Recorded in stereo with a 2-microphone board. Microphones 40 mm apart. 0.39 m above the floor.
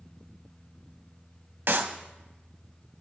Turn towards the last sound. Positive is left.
turn(degrees=-70)  # may be behind; listen again after turning